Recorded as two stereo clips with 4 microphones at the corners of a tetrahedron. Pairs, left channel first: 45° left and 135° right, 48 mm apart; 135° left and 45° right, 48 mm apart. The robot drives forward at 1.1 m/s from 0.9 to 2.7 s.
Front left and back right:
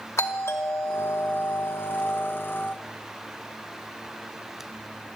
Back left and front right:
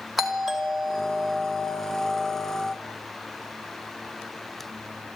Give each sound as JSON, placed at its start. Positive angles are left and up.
{"t": 0.2, "sound": "a doorbell", "azimuth_deg": 40, "distance_m": 2.5}